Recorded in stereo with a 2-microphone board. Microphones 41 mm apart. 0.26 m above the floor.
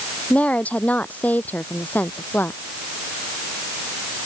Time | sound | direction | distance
0.3 | a woman speaking | 30° left (ahead or behind) | ?